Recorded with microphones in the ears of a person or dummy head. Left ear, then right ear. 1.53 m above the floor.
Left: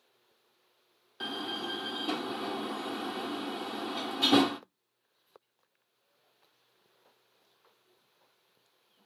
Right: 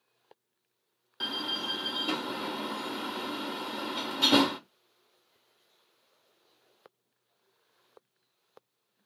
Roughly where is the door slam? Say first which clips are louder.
Right 3 dB; centre.